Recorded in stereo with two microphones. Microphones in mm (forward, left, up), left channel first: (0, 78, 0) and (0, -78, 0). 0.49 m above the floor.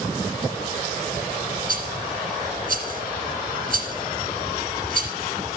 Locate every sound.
1.7 s a rattle: 70° right (ahead or behind), 2 m